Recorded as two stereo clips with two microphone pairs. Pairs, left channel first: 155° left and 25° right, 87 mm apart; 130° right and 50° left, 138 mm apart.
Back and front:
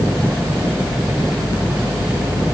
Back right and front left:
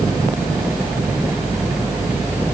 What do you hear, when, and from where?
Only background noise.